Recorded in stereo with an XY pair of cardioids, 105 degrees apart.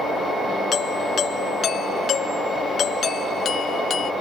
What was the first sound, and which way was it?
A doorbell, 55° left.